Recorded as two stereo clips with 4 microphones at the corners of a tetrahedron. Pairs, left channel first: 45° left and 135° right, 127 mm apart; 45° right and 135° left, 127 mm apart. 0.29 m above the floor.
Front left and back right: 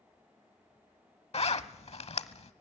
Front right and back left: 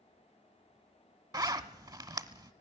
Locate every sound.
1.3 s a zipper: 80° left, 0.6 m